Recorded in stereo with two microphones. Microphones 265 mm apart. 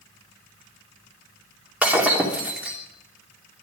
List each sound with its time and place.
1.8 s breaking glass: 5° right (ahead or behind), 2.5 m